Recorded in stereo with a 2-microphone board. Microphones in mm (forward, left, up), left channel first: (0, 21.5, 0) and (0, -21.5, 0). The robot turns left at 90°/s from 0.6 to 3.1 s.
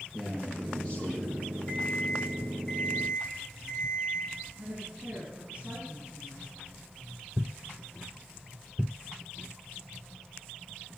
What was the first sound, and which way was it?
A man speaking, straight behind.